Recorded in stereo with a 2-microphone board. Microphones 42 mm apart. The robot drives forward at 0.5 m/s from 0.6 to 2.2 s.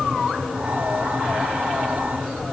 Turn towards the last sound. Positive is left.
No sound to turn to.